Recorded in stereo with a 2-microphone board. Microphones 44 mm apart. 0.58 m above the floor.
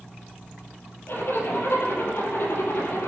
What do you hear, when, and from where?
1.1 s a zipper: 60° left (ahead or behind), 9.5 m